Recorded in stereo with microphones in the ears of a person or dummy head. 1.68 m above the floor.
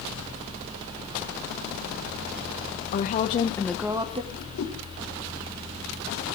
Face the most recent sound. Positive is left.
turn(degrees=75)  # may be behind; listen again after turning